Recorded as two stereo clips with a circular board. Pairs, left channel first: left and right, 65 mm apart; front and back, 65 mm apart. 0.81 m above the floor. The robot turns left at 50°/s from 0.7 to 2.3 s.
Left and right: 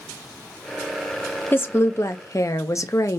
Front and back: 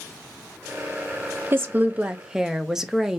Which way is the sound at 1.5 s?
140° left.